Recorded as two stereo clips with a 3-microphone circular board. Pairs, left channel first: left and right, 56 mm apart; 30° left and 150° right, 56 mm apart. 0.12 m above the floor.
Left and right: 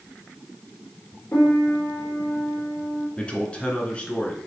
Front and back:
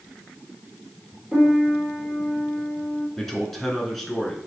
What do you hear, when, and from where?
1.3 s a piano: 130° left, 1.9 m
3.2 s a man speaking: 105° left, 1.4 m